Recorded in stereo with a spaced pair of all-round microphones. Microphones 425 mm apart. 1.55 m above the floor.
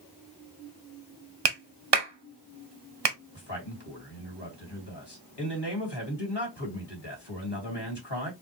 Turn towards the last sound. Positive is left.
turn(degrees=70)  # may be behind; listen again after turning